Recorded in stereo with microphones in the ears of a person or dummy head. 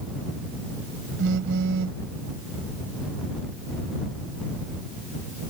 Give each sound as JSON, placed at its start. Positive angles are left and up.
{"t": 1.2, "sound": "a phone buzzing", "side_deg": -70}